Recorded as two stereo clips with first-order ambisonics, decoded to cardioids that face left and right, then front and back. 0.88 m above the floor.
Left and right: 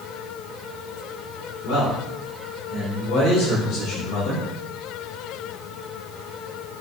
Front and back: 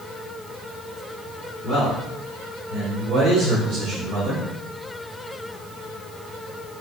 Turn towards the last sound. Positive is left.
turn(degrees=120)